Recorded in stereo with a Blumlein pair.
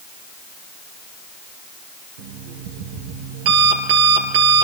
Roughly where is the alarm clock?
Ahead right.